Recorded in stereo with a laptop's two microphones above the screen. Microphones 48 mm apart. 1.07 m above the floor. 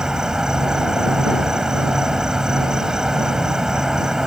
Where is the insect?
15° right (ahead or behind).